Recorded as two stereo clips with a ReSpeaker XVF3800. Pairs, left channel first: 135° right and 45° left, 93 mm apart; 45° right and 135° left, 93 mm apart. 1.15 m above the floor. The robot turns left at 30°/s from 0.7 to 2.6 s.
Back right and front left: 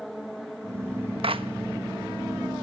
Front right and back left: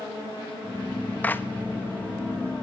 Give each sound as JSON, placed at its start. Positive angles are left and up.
{"t": 1.2, "sound": "a clap", "azimuth_deg": 25, "distance_m": 1.1}